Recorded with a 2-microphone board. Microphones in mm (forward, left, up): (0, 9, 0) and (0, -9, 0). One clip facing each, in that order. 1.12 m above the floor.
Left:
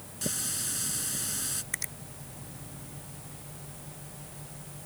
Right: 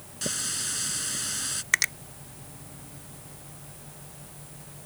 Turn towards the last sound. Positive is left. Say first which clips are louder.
# right 14 dB
turn(degrees=-70)  # may be behind; listen again after turning